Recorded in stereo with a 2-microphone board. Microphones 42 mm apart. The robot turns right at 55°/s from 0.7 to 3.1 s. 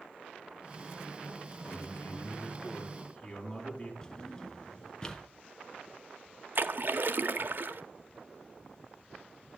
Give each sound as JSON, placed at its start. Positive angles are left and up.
{"t": 1.6, "sound": "a man speaking", "azimuth_deg": 70, "distance_m": 5.0}
{"t": 4.0, "sound": "a drawer", "side_deg": 20, "distance_m": 1.3}
{"t": 6.5, "sound": "a splash", "side_deg": -60, "distance_m": 0.8}